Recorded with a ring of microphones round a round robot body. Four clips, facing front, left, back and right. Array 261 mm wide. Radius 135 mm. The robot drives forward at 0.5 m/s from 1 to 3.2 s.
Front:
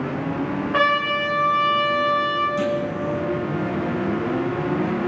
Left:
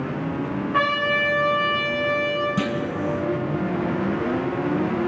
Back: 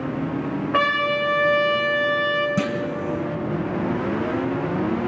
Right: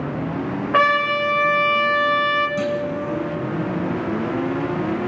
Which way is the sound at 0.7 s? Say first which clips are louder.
Right 5 dB, front 1 dB; 100° right.